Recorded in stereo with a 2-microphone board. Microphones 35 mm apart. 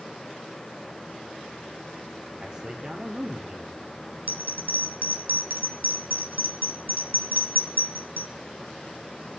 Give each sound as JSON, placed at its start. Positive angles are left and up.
{"t": 2.4, "sound": "a man speaking", "side_deg": -25, "distance_m": 3.5}
{"t": 4.3, "sound": "a bell", "side_deg": -70, "distance_m": 4.0}